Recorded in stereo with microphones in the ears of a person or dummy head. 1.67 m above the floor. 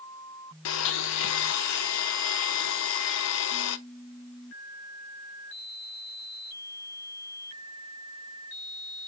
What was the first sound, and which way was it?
A blender, 85° left.